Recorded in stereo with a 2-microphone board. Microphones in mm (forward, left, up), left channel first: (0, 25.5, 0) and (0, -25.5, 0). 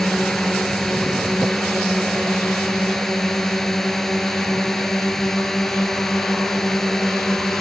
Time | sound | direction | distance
0.0 | a drone | 5° left (ahead or behind) | ?